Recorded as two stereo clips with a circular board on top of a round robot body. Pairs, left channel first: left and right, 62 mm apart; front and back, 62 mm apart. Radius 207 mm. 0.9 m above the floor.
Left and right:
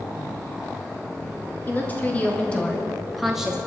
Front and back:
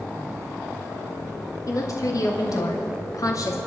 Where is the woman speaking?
30° left, 2.5 m; by 3.6 s 15° right, 1.5 m.